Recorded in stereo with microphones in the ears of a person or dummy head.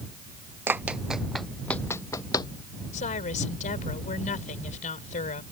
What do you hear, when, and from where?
0.7 s running footsteps: 10° right (ahead or behind); by 2.5 s 25° left (ahead or behind)
2.9 s a woman speaking: 40° left (ahead or behind)